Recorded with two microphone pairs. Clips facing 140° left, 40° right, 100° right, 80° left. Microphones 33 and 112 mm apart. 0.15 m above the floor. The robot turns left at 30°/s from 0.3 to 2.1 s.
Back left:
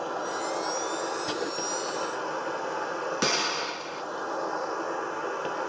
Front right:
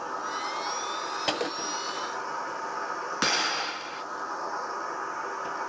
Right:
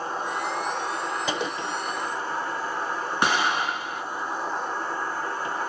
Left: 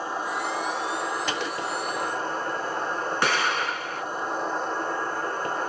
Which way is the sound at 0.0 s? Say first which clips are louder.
Back left 1 dB, even; 160° left.